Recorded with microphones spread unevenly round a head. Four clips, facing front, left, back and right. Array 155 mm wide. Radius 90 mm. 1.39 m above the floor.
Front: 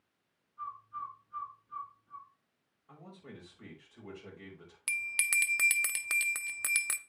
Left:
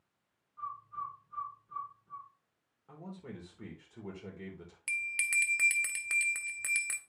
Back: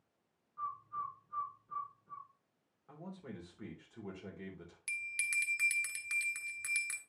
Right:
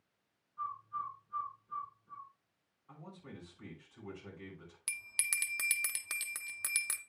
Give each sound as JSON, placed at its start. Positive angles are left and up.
{"t": 0.6, "sound": "a bird", "azimuth_deg": 180, "distance_m": 1.7}
{"t": 2.9, "sound": "a man speaking", "azimuth_deg": 120, "distance_m": 4.0}
{"t": 4.9, "sound": "a bell", "azimuth_deg": -5, "distance_m": 0.6}